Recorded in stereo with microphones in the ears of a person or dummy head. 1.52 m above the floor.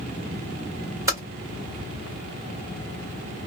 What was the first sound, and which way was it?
Typing on a keyboard, 20° right (ahead or behind).